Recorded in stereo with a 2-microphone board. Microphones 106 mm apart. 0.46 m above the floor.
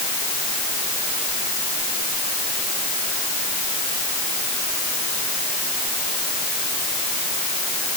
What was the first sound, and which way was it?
Only background noise.